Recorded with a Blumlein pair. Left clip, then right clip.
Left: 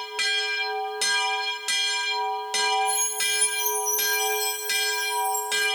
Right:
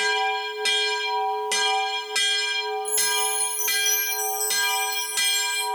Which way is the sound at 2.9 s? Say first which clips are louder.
Right 1 dB; 25° right.